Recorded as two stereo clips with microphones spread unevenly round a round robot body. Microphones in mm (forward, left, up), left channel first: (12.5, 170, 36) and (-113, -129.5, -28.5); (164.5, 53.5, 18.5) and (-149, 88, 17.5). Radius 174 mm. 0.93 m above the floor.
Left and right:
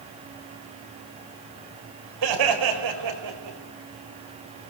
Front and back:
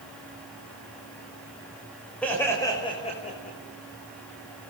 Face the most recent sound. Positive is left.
turn(degrees=-75)